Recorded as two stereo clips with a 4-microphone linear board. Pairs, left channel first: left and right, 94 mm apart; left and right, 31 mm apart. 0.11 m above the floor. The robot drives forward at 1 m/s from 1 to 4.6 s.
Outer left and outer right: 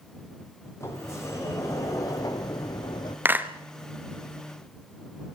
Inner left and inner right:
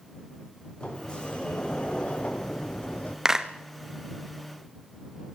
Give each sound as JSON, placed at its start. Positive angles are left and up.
{"t": 0.8, "sound": "a sliding door", "side_deg": 30, "distance_m": 4.5}
{"t": 3.2, "sound": "a clap", "side_deg": -20, "distance_m": 1.5}